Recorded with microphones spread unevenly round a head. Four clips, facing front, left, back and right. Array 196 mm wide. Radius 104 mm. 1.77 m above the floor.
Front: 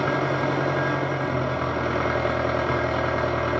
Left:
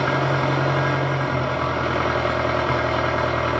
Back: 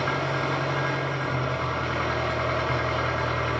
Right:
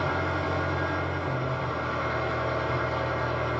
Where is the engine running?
50° left, 0.8 m.